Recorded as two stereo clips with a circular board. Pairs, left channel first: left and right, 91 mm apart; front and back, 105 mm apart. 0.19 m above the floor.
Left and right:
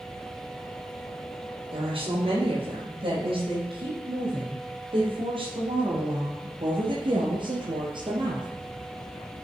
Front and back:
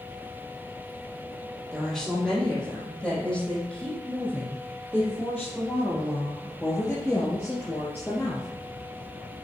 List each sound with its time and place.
1.7 s a woman speaking: 90° right, 6 m; by 8.5 s 70° right, 3 m